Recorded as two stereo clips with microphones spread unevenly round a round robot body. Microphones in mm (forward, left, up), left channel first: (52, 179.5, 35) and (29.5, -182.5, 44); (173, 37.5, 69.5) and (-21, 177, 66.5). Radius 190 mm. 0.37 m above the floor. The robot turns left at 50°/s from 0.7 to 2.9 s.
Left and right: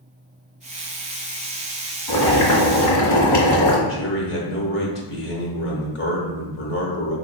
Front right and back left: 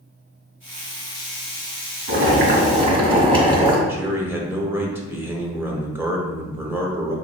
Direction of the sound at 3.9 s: 70° left.